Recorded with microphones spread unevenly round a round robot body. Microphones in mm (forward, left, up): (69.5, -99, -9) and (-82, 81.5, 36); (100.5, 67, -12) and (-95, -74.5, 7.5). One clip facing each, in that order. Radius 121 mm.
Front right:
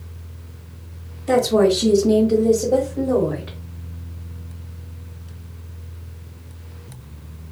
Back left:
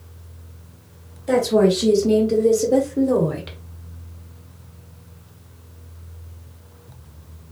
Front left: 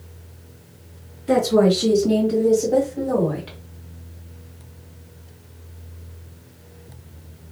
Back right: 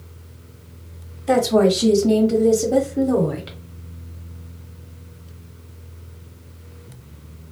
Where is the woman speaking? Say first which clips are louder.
Front right 1 dB, even; 130° right, 1.8 m; by 3.6 s 160° left, 1.3 m.